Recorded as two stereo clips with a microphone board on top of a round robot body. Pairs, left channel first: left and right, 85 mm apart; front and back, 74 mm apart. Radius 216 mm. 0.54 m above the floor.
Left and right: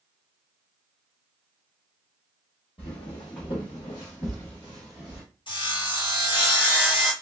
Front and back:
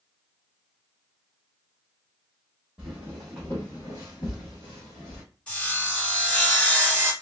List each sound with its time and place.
2.8 s footsteps: 95° left, 0.9 m; by 5.2 s 10° right, 1.0 m
5.5 s sawing: 70° left, 1.3 m